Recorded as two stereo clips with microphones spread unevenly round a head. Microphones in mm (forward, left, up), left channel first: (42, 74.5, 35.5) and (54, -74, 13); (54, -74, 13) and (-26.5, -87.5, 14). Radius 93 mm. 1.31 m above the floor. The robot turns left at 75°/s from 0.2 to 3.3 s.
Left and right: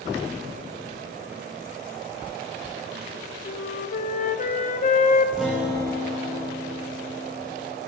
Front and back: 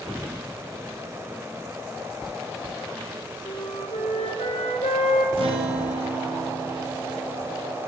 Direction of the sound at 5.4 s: 175° right.